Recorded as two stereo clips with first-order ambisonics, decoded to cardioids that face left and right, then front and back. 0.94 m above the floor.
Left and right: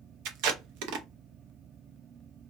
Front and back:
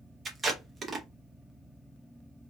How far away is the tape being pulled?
About 0.6 m.